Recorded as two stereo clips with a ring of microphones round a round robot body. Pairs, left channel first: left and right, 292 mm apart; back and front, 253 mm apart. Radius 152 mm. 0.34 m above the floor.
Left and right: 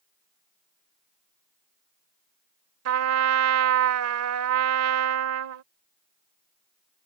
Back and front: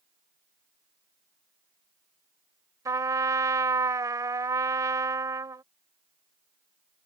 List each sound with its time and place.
2.9 s a trumpet: 75° right